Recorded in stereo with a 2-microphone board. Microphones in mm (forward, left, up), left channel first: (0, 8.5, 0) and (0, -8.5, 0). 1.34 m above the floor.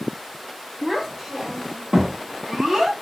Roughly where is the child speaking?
Right.